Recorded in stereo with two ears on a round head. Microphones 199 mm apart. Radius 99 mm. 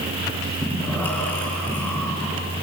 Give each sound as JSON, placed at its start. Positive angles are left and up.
{"t": 0.6, "sound": "breathing", "side_deg": 10, "distance_m": 8.5}